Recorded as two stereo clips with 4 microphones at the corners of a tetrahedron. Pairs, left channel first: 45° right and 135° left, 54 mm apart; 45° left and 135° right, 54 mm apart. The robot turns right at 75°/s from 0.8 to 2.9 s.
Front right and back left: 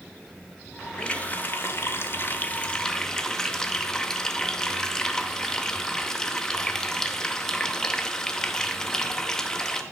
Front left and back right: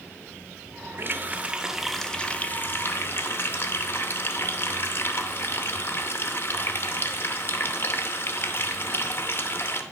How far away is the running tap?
About 0.8 m.